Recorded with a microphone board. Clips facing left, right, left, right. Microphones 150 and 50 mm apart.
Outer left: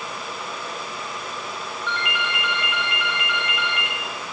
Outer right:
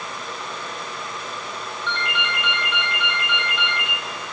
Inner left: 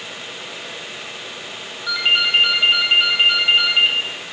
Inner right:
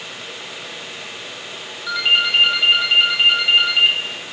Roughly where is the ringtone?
Centre.